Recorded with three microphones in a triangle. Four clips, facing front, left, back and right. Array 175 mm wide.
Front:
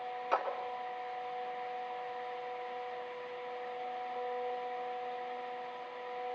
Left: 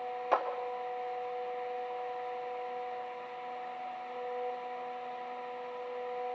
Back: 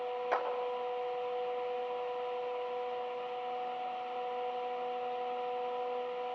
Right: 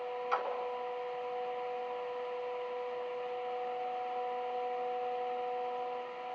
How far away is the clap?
About 3.5 m.